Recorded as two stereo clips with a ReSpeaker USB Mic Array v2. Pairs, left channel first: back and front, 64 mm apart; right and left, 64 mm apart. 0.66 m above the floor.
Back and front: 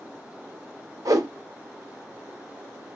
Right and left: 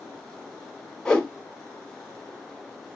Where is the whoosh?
10° right, 1.7 m.